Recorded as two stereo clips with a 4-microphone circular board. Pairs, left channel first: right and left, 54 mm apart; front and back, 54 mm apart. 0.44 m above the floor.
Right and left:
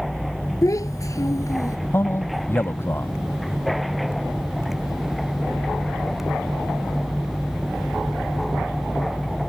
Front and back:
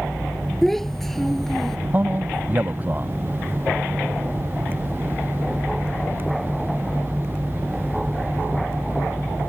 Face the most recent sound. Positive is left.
turn(degrees=-125)